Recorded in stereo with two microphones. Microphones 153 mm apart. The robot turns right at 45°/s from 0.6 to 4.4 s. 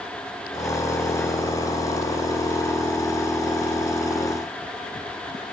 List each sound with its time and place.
Only background noise.